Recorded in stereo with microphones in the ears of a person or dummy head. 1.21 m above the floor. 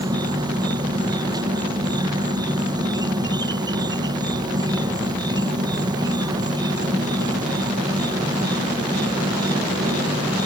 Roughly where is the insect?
Centre.